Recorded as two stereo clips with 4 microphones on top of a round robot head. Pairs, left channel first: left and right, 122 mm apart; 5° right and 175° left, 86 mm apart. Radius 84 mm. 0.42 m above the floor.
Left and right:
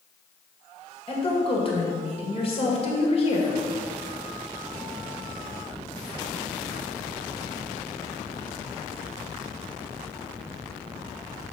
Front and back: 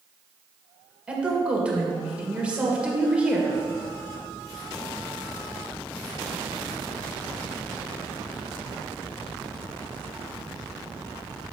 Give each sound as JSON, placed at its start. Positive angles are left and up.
{"t": 1.1, "sound": "a woman speaking", "azimuth_deg": 105, "distance_m": 2.0}